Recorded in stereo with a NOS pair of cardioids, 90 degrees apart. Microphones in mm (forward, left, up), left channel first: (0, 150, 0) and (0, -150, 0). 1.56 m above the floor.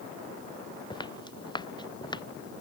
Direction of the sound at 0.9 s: 15° left.